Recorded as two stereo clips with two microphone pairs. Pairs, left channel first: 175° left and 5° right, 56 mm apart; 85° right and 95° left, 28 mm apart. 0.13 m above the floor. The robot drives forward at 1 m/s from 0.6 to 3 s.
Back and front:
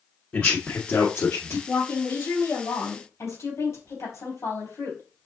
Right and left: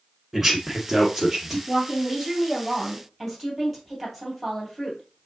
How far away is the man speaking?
About 1.1 m.